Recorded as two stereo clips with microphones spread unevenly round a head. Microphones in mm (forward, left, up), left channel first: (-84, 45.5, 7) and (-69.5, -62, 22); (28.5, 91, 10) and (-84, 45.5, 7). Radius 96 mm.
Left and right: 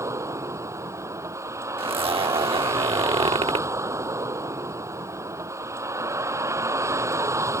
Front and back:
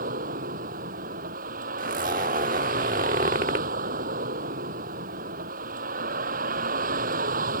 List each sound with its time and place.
0.0 s a vehicle: 145° right
1.8 s a zipper: 115° right